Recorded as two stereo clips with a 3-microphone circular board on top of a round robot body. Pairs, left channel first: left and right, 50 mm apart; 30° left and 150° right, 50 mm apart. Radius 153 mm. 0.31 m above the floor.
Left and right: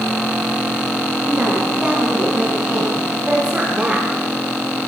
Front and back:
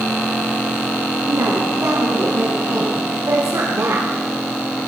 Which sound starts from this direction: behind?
A woman speaking, at 1.3 s.